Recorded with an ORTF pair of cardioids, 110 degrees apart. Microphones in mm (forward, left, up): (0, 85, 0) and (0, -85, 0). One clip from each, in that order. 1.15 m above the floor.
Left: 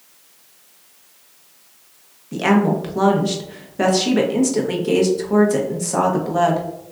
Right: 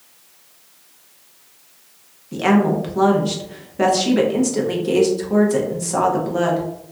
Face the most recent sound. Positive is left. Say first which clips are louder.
# even
turn(degrees=5)